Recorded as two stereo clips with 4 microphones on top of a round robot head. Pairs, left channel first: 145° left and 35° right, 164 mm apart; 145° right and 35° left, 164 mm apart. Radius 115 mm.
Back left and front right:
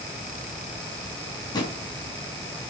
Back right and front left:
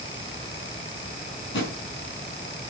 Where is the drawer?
150° right, 5.5 m.